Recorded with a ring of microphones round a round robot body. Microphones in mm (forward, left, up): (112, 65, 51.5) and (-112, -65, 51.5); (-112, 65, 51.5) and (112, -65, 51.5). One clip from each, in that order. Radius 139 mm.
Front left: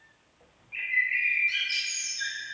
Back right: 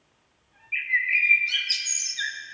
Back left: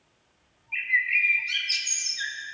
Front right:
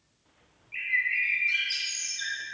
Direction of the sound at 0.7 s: 150° right.